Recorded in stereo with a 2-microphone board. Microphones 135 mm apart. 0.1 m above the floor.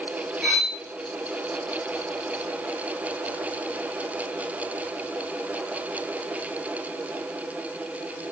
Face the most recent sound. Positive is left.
turn(degrees=-5)  # may be behind; listen again after turning